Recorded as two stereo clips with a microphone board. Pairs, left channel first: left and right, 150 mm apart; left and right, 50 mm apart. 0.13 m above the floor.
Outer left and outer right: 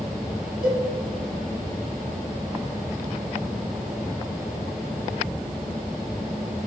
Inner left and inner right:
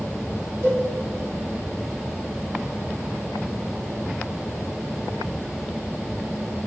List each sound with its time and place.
0.6 s a cowbell: 65° right (ahead or behind), 1.9 m